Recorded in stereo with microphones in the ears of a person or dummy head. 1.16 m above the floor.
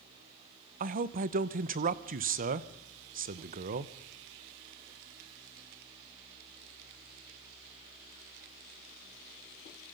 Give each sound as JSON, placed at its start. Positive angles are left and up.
{"t": 0.8, "sound": "a man speaking", "side_deg": -45, "distance_m": 0.8}